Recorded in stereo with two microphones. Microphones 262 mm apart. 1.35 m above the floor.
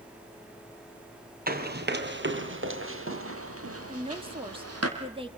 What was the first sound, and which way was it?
Running footsteps, 35° right (ahead or behind).